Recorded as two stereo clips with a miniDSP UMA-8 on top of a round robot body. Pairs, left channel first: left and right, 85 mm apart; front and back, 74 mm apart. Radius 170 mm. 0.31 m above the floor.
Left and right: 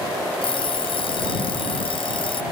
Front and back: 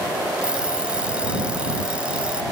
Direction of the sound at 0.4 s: 105° left.